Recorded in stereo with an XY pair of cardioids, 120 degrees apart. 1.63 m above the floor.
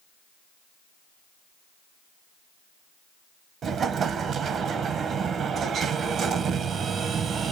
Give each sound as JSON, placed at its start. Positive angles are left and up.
{"t": 3.6, "sound": "an explosion", "azimuth_deg": -50, "distance_m": 1.1}